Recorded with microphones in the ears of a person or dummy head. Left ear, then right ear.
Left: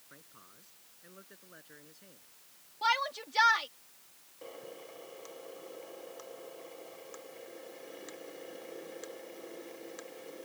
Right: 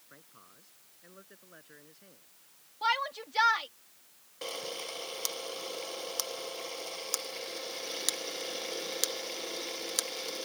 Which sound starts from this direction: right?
A camera shutter, at 4.4 s.